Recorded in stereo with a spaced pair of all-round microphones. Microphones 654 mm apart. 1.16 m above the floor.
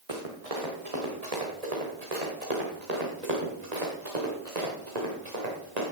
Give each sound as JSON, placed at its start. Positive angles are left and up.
{"t": 0.1, "sound": "running footsteps", "side_deg": -60, "distance_m": 5.0}